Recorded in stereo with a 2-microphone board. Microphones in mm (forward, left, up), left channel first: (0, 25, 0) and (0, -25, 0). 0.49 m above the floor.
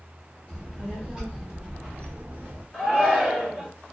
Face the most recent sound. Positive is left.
turn(degrees=-10)  # may be behind; listen again after turning